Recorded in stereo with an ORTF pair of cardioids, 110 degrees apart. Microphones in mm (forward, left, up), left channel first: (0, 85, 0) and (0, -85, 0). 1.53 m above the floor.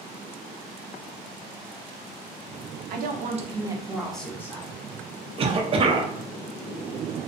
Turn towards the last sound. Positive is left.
turn(degrees=-35)